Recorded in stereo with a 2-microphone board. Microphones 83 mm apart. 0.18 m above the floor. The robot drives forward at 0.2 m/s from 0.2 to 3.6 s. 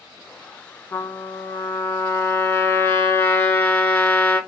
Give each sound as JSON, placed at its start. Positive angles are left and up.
{"t": 0.9, "sound": "a trumpet", "side_deg": 40, "distance_m": 0.6}